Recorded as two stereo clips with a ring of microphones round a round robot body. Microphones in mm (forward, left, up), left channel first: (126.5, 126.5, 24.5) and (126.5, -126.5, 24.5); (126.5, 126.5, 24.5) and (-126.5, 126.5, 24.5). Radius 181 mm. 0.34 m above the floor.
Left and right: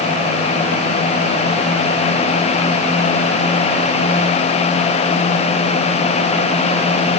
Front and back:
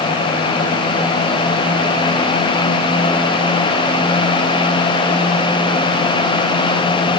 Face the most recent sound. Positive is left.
No sound to turn to.